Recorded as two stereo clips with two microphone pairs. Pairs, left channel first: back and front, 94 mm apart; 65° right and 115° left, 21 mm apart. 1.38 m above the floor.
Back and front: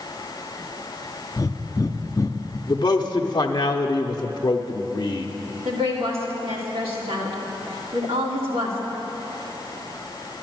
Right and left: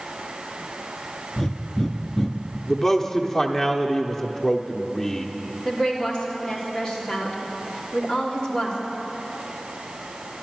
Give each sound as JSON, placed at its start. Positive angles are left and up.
{"t": 1.4, "sound": "breathing", "azimuth_deg": -130, "distance_m": 0.5}
{"t": 2.7, "sound": "a man speaking", "azimuth_deg": -145, "distance_m": 0.7}
{"t": 5.7, "sound": "a woman speaking", "azimuth_deg": -5, "distance_m": 3.0}